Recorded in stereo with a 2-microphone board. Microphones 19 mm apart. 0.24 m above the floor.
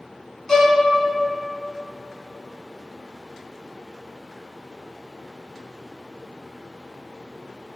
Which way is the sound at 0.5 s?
30° left (ahead or behind).